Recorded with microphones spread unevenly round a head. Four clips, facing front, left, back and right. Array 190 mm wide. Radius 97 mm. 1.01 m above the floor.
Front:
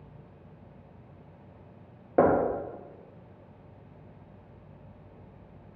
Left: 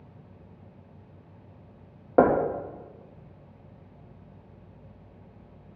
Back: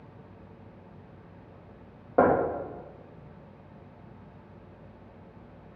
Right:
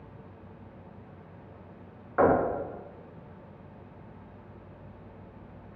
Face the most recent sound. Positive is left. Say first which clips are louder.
# left 3 dB, even
turn(degrees=85)